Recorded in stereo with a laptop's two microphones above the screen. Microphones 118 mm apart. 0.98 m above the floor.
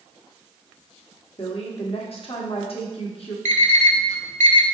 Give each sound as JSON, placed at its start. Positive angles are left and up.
{"t": 1.4, "sound": "a woman speaking", "side_deg": 55, "distance_m": 1.3}
{"t": 3.5, "sound": "an alarm clock", "side_deg": -90, "distance_m": 0.6}